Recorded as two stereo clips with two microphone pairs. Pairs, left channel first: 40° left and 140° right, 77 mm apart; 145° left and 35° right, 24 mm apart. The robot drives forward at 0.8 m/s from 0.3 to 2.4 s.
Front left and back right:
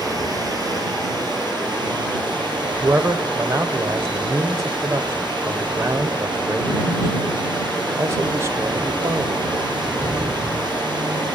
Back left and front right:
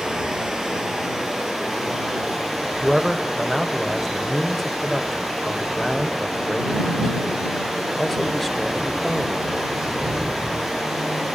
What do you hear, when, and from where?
0.0 s running water: 105° right, 4.5 m; by 11.4 s 125° right, 5 m
2.8 s a man speaking: 135° right, 1.0 m